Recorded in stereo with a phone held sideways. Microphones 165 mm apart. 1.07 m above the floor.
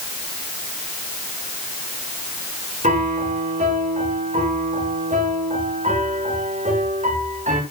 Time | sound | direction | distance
2.8 | a piano | 50° right (ahead or behind) | 6.5 m